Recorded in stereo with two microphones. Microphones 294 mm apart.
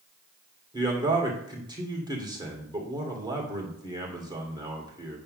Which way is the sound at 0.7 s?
15° right (ahead or behind).